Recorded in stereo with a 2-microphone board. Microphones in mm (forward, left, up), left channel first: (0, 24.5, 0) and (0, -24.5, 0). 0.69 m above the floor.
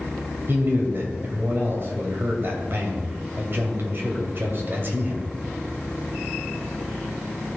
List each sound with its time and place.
0.5 s a man speaking: 45° right (ahead or behind), 2.5 m